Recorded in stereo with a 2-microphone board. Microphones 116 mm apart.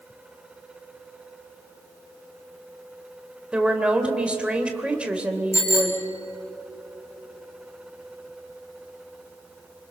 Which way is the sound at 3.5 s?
10° right (ahead or behind).